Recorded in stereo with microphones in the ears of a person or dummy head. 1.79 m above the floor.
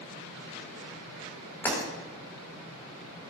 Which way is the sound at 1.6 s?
10° left (ahead or behind).